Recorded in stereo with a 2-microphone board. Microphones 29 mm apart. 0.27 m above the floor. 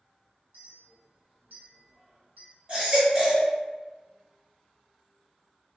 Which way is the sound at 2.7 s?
35° right (ahead or behind).